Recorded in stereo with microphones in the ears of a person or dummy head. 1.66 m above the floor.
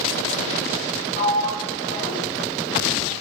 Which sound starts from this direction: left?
A sliding door, at 1.1 s.